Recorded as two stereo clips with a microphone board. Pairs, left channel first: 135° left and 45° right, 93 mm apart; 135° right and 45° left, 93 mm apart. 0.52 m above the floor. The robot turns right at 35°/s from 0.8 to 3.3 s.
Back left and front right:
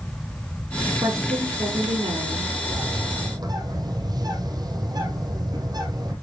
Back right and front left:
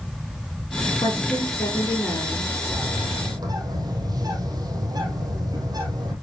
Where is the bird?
25° right, 3 m; by 6.1 s straight ahead, 3 m.